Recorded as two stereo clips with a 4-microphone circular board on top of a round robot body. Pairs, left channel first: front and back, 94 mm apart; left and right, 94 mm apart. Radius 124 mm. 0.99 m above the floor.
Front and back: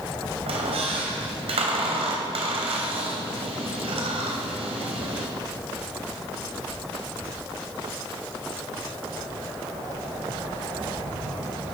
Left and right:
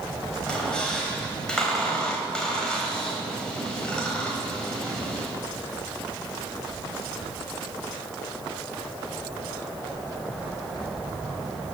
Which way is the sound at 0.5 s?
170° left.